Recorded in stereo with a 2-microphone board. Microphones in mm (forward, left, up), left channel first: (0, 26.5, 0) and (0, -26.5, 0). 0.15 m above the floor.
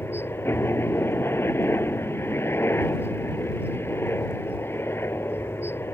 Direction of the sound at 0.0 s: 45° left (ahead or behind).